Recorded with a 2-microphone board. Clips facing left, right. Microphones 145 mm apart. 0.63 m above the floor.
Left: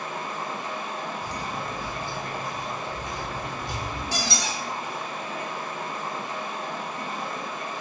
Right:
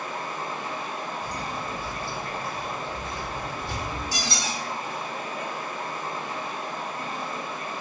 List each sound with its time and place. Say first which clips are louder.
0.0 s running water: even; 70° left (ahead or behind), 1.8 m
1.2 s footsteps: even; 15° left (ahead or behind), 0.7 m
4.1 s a squeak: left 1 dB; 65° left (ahead or behind), 1.4 m